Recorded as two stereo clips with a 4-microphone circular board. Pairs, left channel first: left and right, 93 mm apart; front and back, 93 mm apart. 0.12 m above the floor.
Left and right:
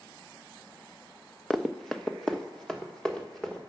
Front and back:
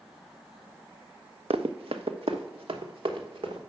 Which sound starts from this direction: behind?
Running footsteps, at 1.5 s.